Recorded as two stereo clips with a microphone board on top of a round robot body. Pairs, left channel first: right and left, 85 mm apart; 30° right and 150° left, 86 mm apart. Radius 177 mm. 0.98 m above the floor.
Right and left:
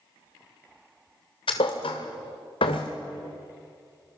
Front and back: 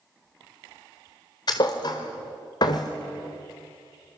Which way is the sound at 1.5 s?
70° right.